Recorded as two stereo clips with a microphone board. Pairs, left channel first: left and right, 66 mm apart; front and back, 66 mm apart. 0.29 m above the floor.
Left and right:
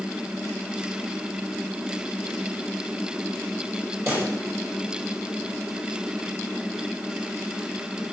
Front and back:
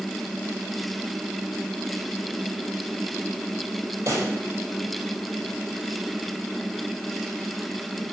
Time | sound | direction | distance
4.1 | a pop | 135° right | 7.5 m